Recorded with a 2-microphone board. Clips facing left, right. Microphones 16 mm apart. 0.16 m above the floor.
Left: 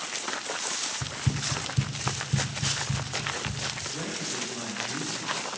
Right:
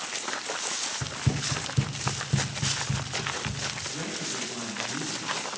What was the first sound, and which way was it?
Running footsteps, 65° right (ahead or behind).